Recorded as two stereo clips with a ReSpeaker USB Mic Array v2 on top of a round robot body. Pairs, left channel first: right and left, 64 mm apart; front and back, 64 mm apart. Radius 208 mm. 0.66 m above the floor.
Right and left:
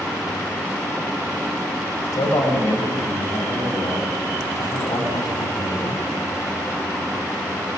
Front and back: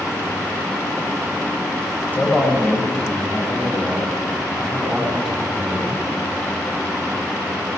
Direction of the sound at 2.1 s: 65° right.